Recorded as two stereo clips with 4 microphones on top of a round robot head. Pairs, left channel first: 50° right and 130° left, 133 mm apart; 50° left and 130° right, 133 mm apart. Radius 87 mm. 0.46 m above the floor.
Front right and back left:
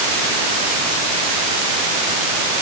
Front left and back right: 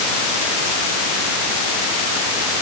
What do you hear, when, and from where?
Only background noise.